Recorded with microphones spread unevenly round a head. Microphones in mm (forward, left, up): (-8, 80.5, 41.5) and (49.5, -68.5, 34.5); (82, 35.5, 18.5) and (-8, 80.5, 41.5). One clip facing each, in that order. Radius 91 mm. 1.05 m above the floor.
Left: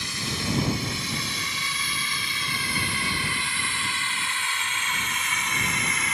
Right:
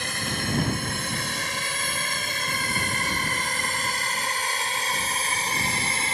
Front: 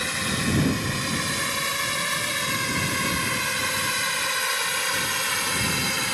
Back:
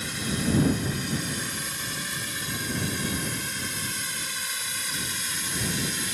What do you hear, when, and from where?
0.0 s a drone: 30° right; by 6.2 s 10° right